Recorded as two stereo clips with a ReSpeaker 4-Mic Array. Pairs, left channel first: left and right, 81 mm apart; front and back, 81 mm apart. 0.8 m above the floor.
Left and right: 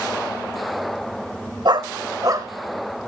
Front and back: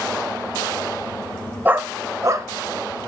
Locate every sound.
1.6 s a dog barking: 110° right, 1.6 m; by 3.1 s 145° right, 2 m